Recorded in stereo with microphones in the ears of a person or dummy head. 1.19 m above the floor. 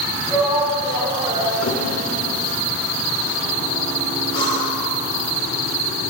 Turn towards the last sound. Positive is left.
turn(degrees=65)  # may be behind; listen again after turning